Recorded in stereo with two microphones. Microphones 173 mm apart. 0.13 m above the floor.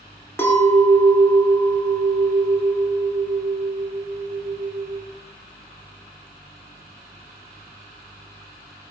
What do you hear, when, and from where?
0.4 s a clink: 15° left (ahead or behind), 0.7 m